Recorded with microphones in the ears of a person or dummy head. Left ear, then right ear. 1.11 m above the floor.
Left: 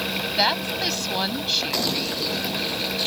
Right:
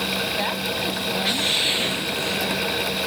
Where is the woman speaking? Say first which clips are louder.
Left 3 dB; 60° left (ahead or behind).